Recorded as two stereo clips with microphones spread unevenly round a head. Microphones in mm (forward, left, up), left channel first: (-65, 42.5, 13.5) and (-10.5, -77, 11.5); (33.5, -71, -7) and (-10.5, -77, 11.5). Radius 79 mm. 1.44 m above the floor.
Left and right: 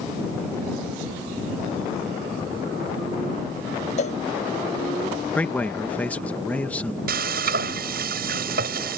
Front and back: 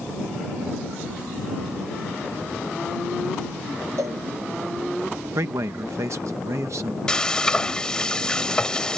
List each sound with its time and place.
4.0 s a cowbell: 150° left
5.3 s a man speaking: 165° right
7.1 s frying: 70° right